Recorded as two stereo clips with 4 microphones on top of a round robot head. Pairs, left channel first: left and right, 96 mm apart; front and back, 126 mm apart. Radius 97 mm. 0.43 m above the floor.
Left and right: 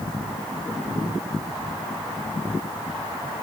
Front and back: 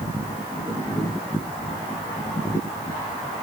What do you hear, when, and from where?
Only background noise.